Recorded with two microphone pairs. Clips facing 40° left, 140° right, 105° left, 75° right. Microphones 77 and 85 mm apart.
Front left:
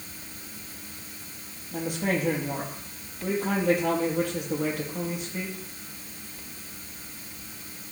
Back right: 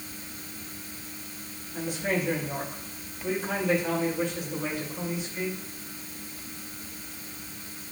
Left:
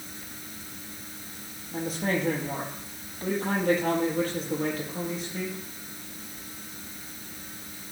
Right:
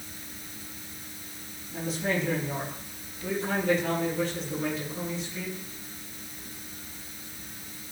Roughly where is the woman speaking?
Left.